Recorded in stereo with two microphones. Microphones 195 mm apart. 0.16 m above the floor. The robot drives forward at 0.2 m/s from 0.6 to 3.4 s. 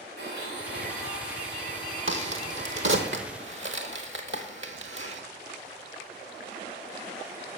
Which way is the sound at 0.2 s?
55° right (ahead or behind).